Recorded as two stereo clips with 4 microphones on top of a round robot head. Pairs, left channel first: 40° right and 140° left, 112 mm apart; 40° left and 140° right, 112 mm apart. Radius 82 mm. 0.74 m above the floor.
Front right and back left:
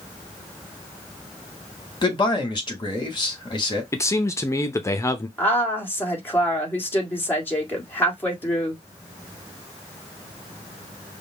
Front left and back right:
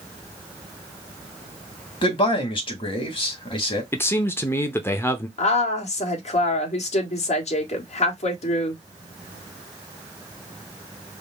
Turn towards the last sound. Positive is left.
turn(degrees=30)